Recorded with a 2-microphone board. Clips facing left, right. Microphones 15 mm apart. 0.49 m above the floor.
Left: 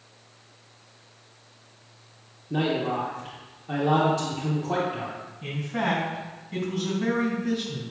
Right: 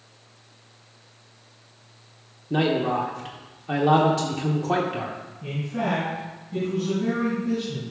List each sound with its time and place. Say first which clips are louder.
2.5 s a man speaking: right 3 dB; 35° right (ahead or behind), 0.8 m
5.4 s a man speaking: even; 40° left (ahead or behind), 3 m